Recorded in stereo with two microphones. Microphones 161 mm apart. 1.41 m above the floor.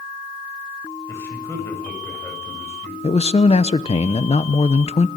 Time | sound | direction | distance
1.1 | a man speaking | 15° left (ahead or behind) | 8 m
3.0 | a man speaking | 40° left (ahead or behind) | 1.0 m